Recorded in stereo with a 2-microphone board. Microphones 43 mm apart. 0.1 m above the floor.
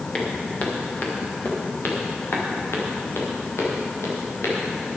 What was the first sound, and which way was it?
Footsteps, 30° left (ahead or behind).